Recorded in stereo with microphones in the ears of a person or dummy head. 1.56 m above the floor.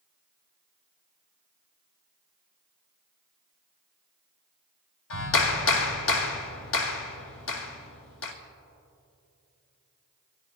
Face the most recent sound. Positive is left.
turn(degrees=75)  # may be behind; listen again after turning